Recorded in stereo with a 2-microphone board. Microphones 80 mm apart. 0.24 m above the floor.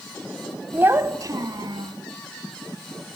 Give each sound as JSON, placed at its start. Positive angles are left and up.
{"t": 0.7, "sound": "a child speaking", "side_deg": -20, "distance_m": 0.8}